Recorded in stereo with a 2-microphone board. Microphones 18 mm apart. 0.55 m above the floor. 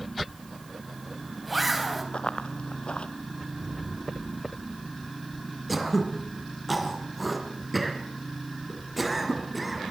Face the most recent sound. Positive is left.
turn(degrees=5)  # may be behind; listen again after turning